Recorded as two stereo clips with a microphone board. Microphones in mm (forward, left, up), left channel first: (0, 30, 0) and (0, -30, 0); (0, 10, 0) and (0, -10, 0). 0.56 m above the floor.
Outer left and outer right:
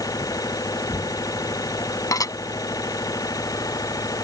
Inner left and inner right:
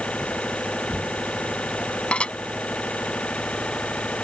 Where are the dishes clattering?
85° left.